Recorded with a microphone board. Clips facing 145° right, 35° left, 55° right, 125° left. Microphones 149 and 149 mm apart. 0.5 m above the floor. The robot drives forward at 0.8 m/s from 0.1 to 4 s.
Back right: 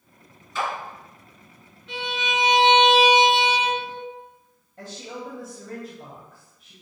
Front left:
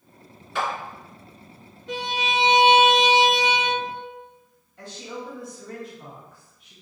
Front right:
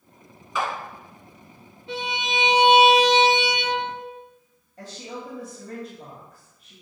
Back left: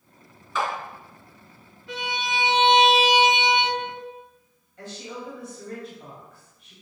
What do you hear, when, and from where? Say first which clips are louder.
0.6 s a clap: front left 1 dB, even; 20° left, 2.5 m; by 0.7 s 25° left, 2.5 m
1.9 s a violin: front left 2 dB, front right 1 dB; straight ahead, 1.0 m; by 4.1 s straight behind, 1.1 m
4.8 s a woman speaking: even, even; 110° right, 2.5 m